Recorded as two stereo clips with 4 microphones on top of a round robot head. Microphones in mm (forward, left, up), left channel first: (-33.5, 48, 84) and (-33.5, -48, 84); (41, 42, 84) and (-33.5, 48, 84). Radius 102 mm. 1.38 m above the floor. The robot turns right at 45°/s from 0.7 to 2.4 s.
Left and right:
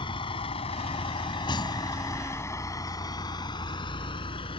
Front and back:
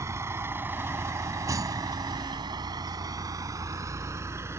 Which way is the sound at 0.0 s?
125° left.